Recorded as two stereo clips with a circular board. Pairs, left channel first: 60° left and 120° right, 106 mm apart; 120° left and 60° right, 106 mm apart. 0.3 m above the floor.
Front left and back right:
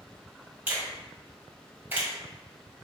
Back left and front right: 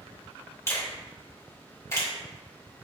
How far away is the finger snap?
About 1.6 m.